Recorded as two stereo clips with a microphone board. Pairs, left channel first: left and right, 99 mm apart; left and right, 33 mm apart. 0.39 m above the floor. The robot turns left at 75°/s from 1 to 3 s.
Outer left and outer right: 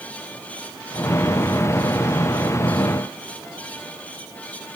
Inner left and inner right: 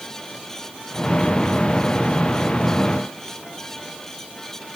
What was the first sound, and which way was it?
Only background noise.